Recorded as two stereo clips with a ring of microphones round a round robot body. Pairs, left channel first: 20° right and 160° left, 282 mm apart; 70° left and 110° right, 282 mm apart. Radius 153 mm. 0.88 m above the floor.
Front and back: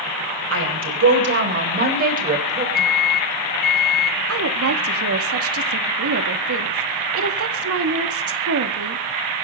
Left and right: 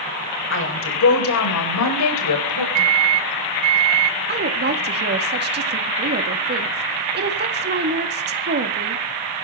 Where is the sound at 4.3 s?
165° right, 2 m.